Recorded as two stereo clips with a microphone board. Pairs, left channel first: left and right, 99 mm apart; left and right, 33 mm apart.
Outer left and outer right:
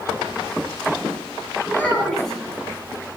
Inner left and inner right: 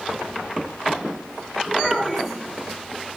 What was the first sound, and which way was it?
A child speaking, 5° left (ahead or behind).